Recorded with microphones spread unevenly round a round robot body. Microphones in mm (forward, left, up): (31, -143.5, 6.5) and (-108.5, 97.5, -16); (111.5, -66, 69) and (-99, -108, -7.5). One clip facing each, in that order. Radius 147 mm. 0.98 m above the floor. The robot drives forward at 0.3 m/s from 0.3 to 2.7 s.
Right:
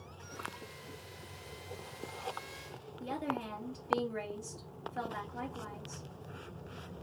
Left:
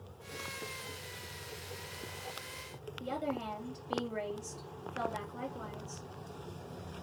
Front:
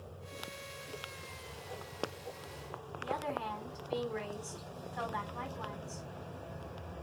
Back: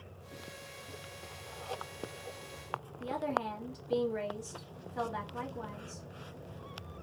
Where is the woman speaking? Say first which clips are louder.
Left 1 dB, back 4 dB; 155° right, 2.5 m.